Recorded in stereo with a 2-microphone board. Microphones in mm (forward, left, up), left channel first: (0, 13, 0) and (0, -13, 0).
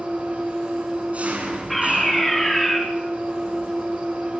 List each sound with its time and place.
0.0 s an engine running: 60° right (ahead or behind), 8.5 m
1.7 s a fire alarm: 10° left (ahead or behind), 5.5 m